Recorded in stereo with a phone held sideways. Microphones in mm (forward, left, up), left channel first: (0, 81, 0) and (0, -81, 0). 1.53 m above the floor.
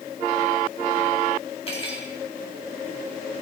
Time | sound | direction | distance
1.7 | cutlery clinking | 35° left (ahead or behind) | 1.9 m